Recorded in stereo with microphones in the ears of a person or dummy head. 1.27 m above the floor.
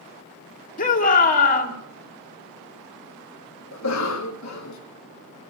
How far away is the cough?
About 1.5 m.